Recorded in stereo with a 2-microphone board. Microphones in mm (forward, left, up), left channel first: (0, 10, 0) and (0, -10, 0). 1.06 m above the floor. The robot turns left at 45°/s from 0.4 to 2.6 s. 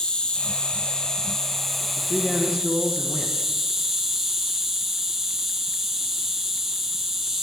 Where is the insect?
70° left, 0.8 m; by 7.4 s 30° right, 0.8 m.